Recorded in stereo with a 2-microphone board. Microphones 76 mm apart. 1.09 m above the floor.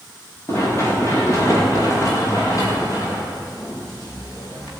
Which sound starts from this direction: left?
Running footsteps, at 0.5 s.